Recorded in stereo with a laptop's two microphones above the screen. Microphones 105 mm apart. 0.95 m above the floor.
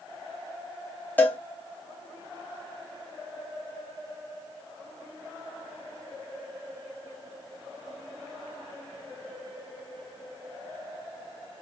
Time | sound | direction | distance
1.2 | a cowbell | 20° left (ahead or behind) | 0.6 m